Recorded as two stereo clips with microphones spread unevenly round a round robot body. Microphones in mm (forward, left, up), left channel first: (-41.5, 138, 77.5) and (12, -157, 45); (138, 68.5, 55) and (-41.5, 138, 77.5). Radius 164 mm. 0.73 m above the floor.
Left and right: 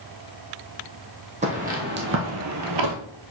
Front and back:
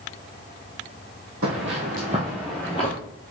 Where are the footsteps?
150° right, 1.9 m; by 3.0 s 85° right, 1.1 m.